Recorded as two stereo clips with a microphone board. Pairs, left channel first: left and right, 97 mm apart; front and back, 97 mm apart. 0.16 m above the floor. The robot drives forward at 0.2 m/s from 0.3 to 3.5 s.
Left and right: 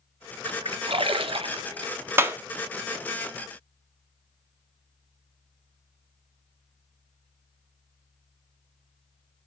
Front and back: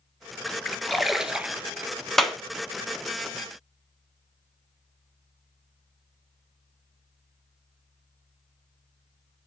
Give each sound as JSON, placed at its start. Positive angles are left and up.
{"t": 0.5, "sound": "a splash", "azimuth_deg": -80, "distance_m": 0.5}
{"t": 2.2, "sound": "a clap", "azimuth_deg": -85, "distance_m": 0.8}